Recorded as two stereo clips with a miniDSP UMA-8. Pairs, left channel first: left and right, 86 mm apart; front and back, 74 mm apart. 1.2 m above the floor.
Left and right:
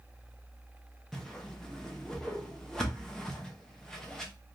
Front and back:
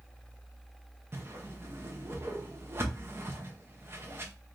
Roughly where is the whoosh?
Behind.